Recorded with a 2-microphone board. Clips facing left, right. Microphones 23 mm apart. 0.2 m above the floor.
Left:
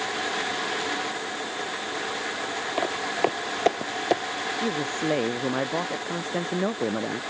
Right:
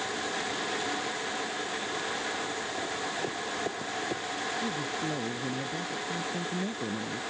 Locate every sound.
2.8 s footsteps: 80° left
4.5 s a man speaking: 85° left